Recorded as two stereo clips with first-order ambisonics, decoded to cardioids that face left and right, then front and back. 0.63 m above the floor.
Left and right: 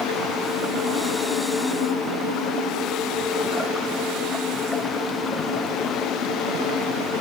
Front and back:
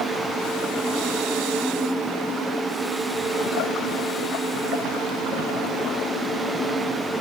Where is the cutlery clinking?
No cutlery clinking in this recording.